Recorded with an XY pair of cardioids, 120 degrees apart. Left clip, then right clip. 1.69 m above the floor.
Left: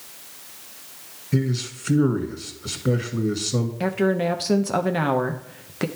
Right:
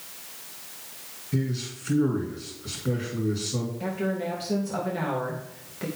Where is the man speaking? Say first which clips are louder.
Left 5 dB; 40° left, 2 m.